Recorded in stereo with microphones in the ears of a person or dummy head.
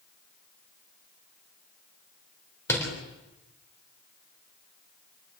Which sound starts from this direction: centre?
A door slam, at 2.7 s.